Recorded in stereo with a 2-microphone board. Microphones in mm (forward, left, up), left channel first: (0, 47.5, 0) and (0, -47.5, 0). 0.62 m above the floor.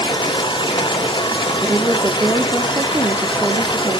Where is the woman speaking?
25° right (ahead or behind), 0.8 m.